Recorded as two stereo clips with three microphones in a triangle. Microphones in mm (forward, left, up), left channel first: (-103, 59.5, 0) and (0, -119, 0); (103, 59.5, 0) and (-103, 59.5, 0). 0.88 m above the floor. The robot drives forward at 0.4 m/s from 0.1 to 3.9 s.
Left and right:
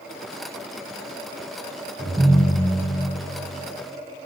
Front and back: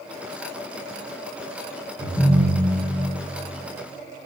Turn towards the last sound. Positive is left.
turn(degrees=-125)